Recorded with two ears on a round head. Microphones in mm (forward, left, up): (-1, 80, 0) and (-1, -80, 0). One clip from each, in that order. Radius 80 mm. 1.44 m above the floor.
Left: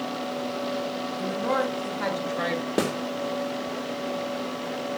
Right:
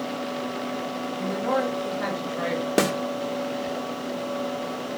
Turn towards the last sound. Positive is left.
turn(degrees=-35)  # may be behind; listen again after turning